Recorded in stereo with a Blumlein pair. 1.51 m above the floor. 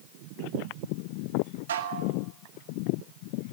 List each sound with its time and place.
1.7 s dishes clattering: 60° right, 2 m